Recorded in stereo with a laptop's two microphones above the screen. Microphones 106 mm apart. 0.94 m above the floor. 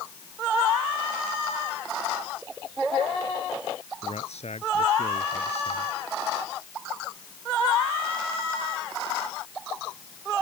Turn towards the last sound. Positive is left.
turn(degrees=85)